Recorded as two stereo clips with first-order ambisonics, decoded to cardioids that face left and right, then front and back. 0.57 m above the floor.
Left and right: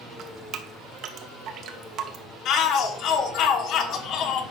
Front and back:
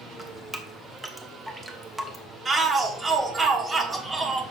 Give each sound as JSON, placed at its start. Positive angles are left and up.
{"t": 0.2, "sound": "dripping", "azimuth_deg": -100, "distance_m": 1.0}
{"t": 2.5, "sound": "a shout", "azimuth_deg": 110, "distance_m": 1.4}